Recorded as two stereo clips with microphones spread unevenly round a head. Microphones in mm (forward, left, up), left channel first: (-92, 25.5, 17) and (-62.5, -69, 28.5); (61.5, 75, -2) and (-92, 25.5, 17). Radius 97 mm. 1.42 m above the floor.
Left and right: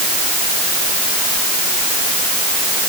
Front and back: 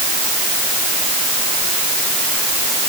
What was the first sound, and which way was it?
Only background noise.